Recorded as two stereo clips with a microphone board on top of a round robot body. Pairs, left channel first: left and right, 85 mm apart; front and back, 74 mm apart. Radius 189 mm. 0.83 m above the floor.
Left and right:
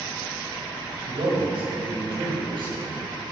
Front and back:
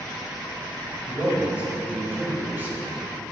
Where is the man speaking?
105° right, 5 m; by 3.0 s 120° right, 7 m.